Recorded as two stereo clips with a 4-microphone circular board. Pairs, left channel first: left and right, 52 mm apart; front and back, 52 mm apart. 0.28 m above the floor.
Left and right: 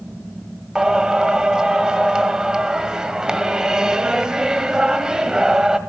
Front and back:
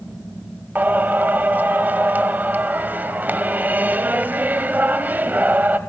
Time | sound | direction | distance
0.8 | singing | 160° right | 1.8 m